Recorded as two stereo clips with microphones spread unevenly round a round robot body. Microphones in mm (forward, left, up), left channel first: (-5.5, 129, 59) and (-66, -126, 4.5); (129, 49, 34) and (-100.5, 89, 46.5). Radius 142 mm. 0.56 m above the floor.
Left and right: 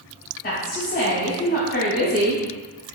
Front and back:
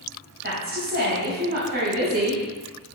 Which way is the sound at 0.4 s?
135° left.